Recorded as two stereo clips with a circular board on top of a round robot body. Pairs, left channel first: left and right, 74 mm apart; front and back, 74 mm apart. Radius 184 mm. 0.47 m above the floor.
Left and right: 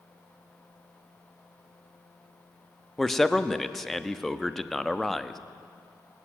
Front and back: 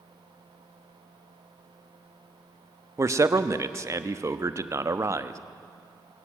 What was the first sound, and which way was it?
A man speaking, 175° left.